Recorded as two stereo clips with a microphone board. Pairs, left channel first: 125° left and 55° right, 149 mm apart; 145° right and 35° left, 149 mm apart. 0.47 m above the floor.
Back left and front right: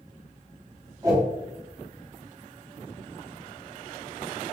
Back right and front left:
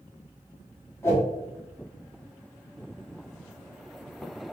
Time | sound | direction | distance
1.0 | a whoosh | 95° right | 1.0 m